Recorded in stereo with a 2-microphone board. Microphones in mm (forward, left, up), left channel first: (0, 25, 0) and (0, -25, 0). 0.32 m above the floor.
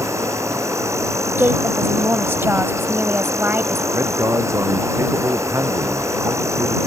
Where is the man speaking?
85° right.